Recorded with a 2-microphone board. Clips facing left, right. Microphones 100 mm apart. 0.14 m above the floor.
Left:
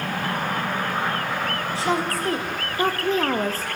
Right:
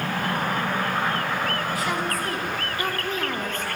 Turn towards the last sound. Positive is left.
turn(degrees=35)  # may be behind; listen again after turning